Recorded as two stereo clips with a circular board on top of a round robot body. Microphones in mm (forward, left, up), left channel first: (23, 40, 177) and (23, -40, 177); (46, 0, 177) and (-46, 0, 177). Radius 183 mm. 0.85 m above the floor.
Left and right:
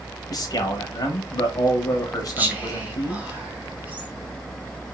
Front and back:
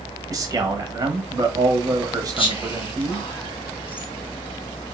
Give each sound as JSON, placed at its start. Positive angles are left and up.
{"t": 0.3, "sound": "a man speaking", "azimuth_deg": 125, "distance_m": 0.8}
{"t": 2.4, "sound": "whispering", "azimuth_deg": -20, "distance_m": 1.3}